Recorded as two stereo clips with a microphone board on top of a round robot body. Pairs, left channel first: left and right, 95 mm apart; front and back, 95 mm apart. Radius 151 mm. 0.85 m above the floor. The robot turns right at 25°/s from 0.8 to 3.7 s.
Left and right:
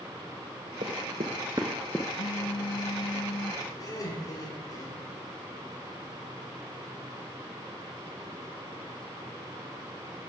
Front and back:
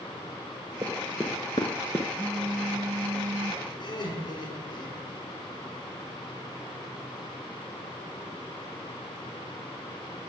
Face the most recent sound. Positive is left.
turn(degrees=40)